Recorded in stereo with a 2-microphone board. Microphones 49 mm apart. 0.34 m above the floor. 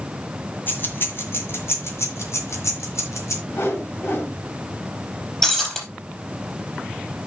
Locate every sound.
0.7 s keys jangling: 45° left (ahead or behind), 1.9 m; by 3.4 s 75° left (ahead or behind), 3 m
3.5 s a whoosh: 55° left (ahead or behind), 1.9 m
5.4 s breaking glass: 15° left (ahead or behind), 4 m